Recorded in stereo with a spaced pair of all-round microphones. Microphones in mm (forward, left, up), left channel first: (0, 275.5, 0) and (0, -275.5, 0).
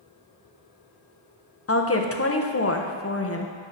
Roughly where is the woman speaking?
Left.